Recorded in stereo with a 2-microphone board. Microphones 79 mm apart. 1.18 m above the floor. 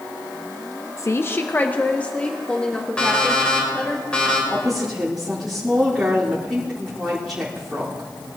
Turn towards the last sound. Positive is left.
turn(degrees=-5)  # may be behind; listen again after turning